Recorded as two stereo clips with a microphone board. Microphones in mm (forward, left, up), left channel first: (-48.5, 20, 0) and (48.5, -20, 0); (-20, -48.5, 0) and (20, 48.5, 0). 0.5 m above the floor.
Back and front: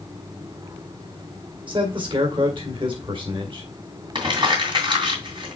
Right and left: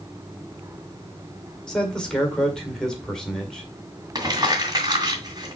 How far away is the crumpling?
About 2.5 m.